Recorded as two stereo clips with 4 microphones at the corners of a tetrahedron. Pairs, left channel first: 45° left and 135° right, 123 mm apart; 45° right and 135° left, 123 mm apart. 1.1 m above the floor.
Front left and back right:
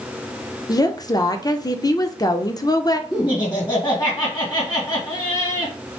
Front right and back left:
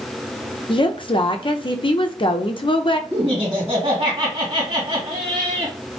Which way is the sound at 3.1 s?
95° left.